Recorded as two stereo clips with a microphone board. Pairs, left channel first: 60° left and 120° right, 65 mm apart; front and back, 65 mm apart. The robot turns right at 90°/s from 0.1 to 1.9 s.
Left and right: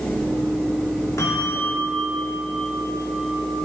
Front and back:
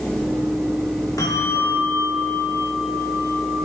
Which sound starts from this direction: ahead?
A bell, at 1.2 s.